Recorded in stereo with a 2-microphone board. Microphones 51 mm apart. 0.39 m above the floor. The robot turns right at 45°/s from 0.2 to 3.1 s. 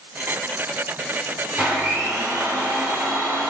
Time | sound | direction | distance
1.6 | a blender | 150° right | 4 m